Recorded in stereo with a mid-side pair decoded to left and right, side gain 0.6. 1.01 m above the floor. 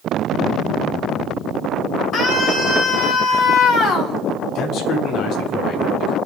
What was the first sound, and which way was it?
A scream, 55° left.